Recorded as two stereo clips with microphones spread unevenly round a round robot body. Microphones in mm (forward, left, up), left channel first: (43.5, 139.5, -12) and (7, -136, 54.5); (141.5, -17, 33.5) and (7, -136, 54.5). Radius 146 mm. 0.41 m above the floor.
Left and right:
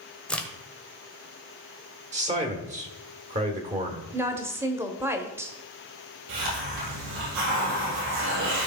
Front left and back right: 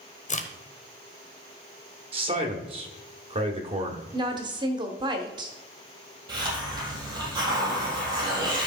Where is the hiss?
75° right, 4.5 m.